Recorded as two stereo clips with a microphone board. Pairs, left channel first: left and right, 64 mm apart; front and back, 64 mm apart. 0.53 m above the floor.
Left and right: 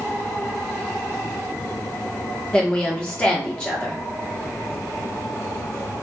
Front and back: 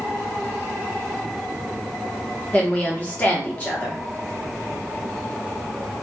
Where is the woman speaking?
35° left, 0.8 m.